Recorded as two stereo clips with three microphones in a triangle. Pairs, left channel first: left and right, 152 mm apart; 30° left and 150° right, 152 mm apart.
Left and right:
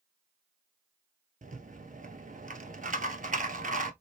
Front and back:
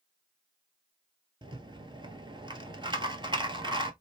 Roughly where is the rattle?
Right.